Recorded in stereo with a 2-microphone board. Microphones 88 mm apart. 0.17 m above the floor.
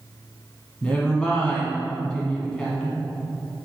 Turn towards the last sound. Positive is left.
turn(degrees=10)  # may be behind; listen again after turning